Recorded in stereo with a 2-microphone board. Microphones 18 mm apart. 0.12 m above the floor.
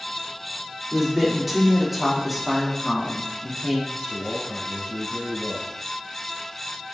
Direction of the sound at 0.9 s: Centre (ahead or behind).